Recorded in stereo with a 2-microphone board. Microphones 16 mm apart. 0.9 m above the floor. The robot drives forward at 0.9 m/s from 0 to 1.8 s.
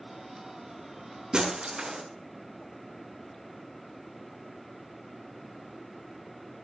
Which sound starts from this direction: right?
Breaking glass, at 1.3 s.